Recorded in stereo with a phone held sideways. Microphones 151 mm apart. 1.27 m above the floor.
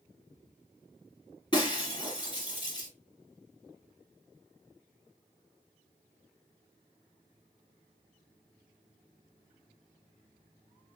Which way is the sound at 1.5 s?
30° left (ahead or behind).